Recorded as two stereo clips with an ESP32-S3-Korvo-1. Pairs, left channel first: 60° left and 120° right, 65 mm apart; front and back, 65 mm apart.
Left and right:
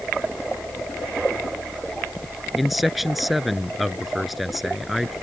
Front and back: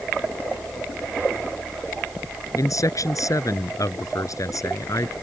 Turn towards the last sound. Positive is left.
turn(degrees=-30)